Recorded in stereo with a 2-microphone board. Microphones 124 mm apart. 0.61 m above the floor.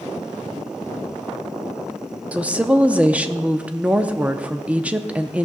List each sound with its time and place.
2.3 s a woman speaking: 10° right (ahead or behind), 0.6 m